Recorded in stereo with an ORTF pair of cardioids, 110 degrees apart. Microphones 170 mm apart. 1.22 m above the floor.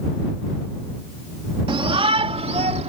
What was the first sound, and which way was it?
A shout, 30° right.